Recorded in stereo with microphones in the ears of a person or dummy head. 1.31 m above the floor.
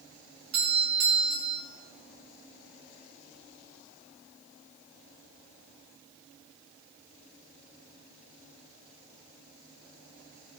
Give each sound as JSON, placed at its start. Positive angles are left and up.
{"t": 0.5, "sound": "a doorbell", "side_deg": -65, "distance_m": 2.5}